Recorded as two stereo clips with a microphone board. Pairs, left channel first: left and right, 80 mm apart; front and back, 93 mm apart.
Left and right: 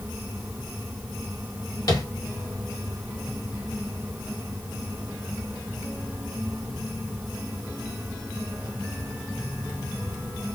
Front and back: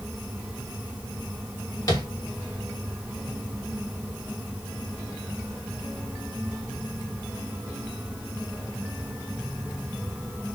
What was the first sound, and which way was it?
Tapping, 50° left.